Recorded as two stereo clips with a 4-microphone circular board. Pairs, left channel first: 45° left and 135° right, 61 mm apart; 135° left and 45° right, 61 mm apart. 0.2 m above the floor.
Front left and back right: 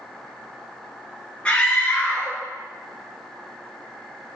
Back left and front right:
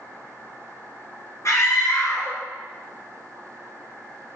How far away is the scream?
About 4 m.